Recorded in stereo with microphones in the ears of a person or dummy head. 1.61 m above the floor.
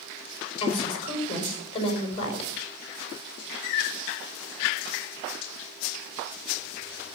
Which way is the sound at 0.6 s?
35° left (ahead or behind).